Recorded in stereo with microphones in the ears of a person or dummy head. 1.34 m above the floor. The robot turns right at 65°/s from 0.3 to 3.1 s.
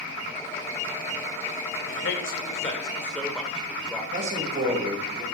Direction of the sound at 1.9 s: 95° left.